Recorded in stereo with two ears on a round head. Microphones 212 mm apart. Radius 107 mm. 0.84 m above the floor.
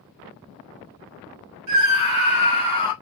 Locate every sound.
1.7 s a scream: 70° right (ahead or behind), 1.0 m; by 2.9 s 20° right (ahead or behind), 1.9 m